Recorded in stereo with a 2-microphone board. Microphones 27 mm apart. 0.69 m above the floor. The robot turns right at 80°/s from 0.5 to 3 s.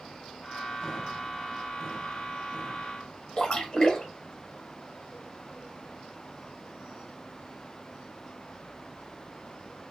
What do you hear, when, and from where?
3.4 s a splash: 20° left (ahead or behind), 1.3 m